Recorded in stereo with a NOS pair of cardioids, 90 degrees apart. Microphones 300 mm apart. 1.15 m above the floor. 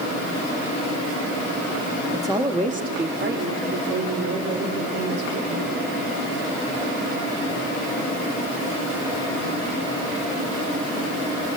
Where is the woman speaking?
10° right, 2.5 m; by 5.7 s 55° right, 6.5 m.